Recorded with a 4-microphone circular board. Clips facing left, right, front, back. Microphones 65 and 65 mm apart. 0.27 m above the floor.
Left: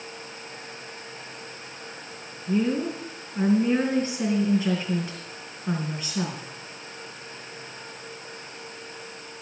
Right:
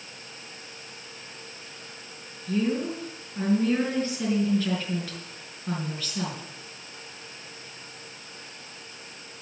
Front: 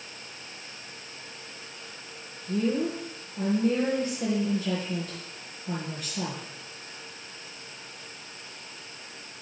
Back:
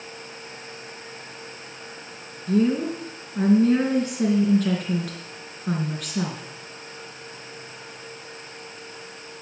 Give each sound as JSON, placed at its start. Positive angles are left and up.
{"t": 2.5, "sound": "a woman speaking", "azimuth_deg": 160, "distance_m": 4.0}